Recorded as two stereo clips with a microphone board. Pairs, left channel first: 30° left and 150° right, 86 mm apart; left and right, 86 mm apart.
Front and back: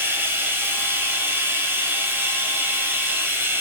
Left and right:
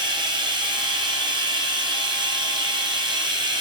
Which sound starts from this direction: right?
Running water, at 0.0 s.